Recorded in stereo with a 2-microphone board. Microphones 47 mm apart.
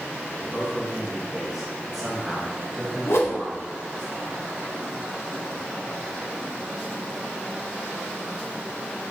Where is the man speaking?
5° right (ahead or behind), 4 m; by 4.1 s 15° left (ahead or behind), 2 m.